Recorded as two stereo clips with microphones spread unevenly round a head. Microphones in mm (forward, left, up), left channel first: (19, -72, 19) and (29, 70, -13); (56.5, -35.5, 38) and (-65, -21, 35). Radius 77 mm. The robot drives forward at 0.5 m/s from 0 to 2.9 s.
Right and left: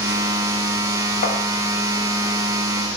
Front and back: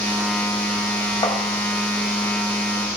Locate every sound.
1.2 s tapping: 65° right, 1.0 m; by 1.4 s 70° right, 1.0 m